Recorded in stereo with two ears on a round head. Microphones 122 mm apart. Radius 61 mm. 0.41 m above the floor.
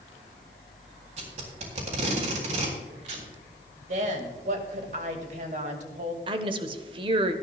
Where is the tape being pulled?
55° right (ahead or behind), 3.5 m.